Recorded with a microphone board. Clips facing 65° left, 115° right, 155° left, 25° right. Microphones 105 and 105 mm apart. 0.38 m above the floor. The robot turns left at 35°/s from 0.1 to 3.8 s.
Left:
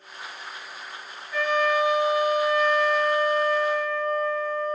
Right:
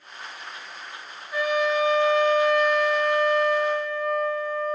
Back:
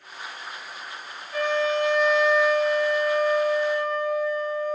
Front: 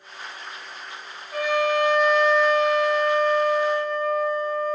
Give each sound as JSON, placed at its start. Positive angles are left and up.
{"t": 1.3, "sound": "a trumpet", "azimuth_deg": -35, "distance_m": 1.1}